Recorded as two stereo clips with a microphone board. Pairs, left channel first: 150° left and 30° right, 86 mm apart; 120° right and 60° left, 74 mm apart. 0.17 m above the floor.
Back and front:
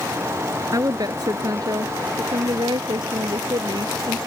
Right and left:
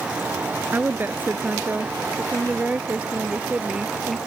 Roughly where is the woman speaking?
Ahead.